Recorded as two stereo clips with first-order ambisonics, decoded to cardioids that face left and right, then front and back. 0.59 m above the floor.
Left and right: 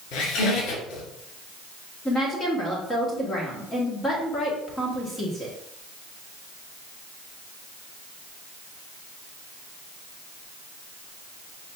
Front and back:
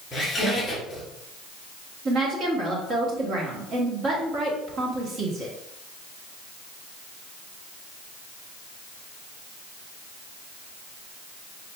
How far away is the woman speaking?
About 1.3 m.